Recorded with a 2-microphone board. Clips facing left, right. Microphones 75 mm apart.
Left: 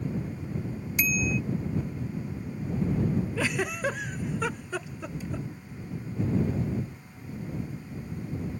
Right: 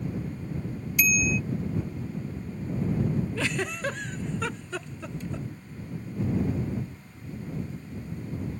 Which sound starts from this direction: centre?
A giggle, at 3.4 s.